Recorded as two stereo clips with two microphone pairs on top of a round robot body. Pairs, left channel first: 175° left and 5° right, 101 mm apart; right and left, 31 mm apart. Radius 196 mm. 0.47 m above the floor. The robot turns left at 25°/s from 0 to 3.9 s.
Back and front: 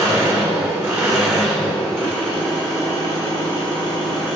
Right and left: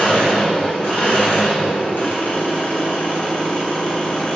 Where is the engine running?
50° right, 1.7 m; by 4.4 s 145° right, 1.7 m.